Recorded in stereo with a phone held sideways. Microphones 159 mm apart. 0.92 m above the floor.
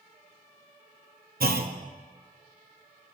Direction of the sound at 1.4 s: 70° right (ahead or behind).